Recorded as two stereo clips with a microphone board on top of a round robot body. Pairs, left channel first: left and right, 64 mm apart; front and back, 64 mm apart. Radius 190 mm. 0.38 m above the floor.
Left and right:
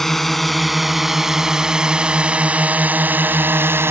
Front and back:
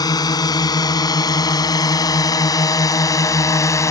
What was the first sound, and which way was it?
A drone, 5° left.